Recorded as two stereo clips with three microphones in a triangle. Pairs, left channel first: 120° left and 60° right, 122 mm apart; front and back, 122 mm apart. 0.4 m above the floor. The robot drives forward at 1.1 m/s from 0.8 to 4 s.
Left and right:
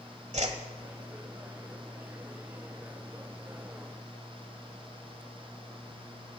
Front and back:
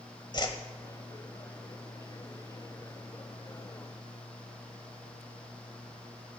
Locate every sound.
0.3 s a whoosh: 50° right, 1.2 m